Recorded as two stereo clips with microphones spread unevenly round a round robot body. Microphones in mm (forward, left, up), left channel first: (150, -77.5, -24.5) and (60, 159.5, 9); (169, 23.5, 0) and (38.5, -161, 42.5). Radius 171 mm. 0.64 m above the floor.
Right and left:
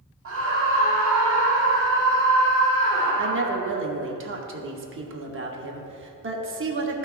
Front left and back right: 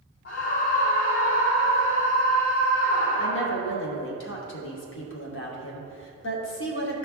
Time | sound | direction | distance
0.2 | a scream | 75° left | 1.1 m
3.2 | a woman speaking | 70° left | 1.3 m